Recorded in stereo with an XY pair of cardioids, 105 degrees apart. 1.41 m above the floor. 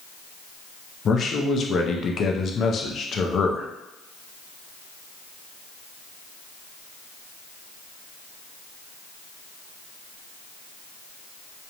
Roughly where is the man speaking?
Ahead left.